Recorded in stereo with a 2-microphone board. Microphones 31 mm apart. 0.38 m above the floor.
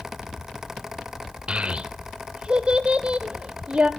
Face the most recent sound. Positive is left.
turn(degrees=-35)  # may be behind; listen again after turning